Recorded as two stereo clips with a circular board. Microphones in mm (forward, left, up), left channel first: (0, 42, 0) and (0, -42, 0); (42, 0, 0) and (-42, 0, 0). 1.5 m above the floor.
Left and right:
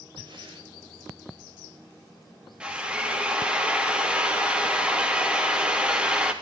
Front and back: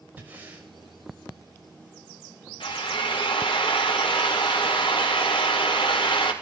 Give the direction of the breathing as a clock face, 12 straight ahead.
4 o'clock.